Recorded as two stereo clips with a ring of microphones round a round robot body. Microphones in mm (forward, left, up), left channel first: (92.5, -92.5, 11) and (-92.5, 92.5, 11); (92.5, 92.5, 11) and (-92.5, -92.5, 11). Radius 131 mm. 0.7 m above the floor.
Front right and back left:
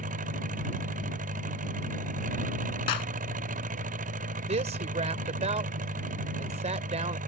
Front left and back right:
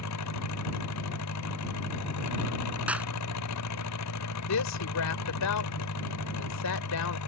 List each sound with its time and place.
0.0 s an engine running: 75° left
2.9 s a clap: 50° right
4.5 s a woman speaking: 70° left